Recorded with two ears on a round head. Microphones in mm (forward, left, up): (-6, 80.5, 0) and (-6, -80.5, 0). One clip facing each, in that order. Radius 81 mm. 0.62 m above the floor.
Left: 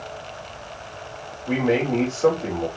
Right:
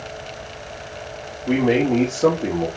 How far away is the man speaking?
About 1.7 m.